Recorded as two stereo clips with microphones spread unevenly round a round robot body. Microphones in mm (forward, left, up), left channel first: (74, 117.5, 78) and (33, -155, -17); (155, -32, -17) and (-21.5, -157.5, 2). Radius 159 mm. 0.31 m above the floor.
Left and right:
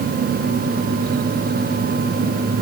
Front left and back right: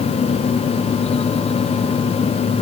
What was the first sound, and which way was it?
Only background noise.